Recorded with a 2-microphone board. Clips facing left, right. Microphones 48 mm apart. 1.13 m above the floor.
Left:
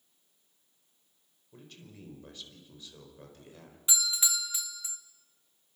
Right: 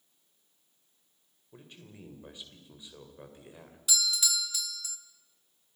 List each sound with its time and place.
1.5 s a man speaking: 15° right (ahead or behind), 5 m
3.9 s a doorbell: 25° left (ahead or behind), 1.9 m